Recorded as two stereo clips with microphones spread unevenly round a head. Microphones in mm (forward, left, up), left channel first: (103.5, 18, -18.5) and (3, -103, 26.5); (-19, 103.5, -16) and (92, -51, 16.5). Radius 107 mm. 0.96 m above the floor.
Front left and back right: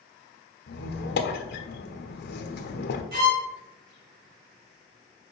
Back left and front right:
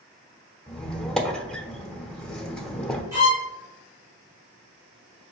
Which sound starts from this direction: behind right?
A violin, at 3.1 s.